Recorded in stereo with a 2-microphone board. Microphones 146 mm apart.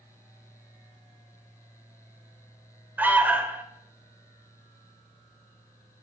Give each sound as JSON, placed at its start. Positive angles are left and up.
{"t": 3.0, "sound": "an alarm", "side_deg": -10, "distance_m": 2.5}